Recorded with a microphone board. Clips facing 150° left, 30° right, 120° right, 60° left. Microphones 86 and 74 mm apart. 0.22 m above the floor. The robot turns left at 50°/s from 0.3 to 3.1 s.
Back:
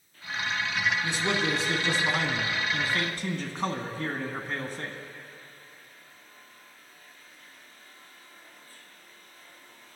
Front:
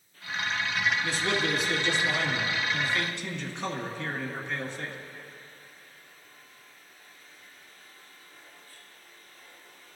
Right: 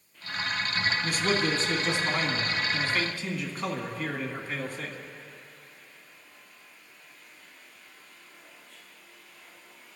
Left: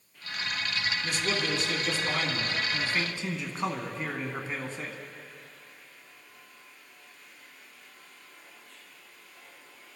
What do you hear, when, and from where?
1.0 s a man speaking: 135° right, 2.0 m; by 5.0 s 120° left, 2.0 m